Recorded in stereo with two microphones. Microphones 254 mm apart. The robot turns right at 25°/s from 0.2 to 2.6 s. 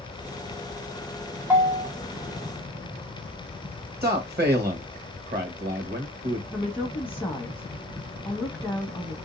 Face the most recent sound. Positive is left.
turn(degrees=5)  # may be behind; listen again after turning